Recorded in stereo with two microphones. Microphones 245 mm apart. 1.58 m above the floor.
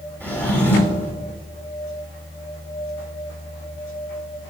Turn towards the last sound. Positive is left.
turn(degrees=5)  # may be behind; listen again after turning